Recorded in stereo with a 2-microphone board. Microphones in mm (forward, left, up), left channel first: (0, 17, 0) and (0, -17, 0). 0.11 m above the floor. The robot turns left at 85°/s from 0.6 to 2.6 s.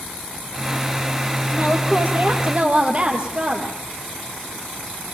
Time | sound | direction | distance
1.5 | a woman speaking | 55° right | 2.5 m